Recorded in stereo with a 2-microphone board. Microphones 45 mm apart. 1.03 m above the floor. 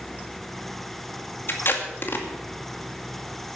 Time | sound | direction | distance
1.5 | tape being pulled | 55° left (ahead or behind) | 2 m